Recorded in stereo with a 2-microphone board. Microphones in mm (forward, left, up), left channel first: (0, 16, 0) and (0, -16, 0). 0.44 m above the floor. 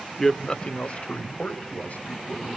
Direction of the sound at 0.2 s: 10° left (ahead or behind).